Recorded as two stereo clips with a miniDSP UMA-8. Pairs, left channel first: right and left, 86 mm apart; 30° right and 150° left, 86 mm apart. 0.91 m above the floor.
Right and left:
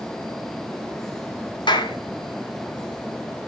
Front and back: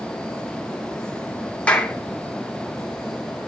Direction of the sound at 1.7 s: 105° right.